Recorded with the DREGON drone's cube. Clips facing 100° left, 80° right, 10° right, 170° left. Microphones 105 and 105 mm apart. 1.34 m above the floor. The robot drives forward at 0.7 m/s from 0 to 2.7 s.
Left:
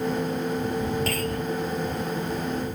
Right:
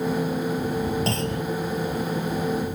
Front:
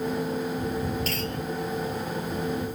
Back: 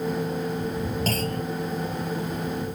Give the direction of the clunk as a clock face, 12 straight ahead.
5 o'clock.